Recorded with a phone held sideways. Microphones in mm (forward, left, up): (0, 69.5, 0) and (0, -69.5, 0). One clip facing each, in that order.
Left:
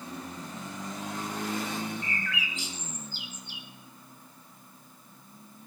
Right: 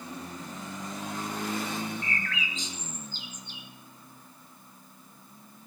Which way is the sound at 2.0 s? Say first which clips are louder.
Right 1 dB; 10° left (ahead or behind).